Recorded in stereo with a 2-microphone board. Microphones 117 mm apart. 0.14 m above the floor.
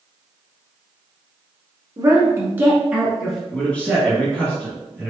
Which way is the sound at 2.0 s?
30° right (ahead or behind).